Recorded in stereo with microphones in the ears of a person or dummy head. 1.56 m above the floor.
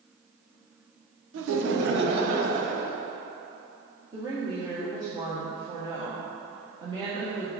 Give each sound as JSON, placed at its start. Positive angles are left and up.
{"t": 1.3, "sound": "laughter", "side_deg": -85, "distance_m": 1.1}
{"t": 4.1, "sound": "a woman speaking", "side_deg": -25, "distance_m": 1.7}